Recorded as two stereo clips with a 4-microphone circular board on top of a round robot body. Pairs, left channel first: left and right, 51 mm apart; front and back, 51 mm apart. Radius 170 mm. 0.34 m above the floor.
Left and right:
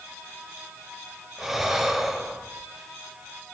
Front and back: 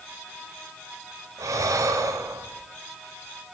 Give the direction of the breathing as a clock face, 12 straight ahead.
6 o'clock.